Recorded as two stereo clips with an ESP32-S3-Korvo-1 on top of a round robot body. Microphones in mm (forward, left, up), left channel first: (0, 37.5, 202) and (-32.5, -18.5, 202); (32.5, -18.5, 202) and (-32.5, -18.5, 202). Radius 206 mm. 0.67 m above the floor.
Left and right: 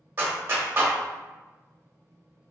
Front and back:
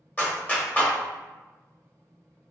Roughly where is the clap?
Ahead right.